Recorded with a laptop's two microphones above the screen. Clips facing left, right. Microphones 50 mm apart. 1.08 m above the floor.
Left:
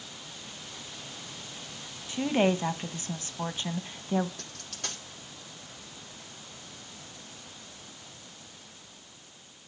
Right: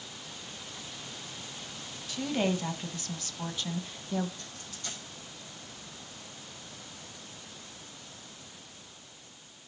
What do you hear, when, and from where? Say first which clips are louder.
2.1 s a woman speaking: left 4 dB; 30° left (ahead or behind), 1.3 m
4.4 s a dropped coin: left 2 dB; 65° left (ahead or behind), 6 m